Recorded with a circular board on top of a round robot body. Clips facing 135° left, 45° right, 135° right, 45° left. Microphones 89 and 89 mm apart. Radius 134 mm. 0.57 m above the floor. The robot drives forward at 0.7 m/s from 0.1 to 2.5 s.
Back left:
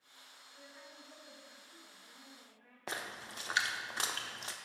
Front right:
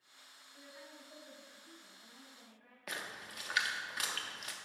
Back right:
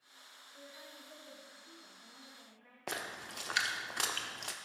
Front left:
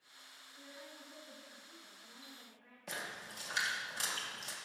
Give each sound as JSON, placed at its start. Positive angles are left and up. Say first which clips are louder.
{"t": 0.5, "sound": "a woman speaking", "louder": "front right 1 dB, even", "azimuth_deg": -125, "distance_m": 3.0}
{"t": 2.9, "sound": "a splash", "louder": "back left 2 dB, back right 3 dB", "azimuth_deg": -165, "distance_m": 0.5}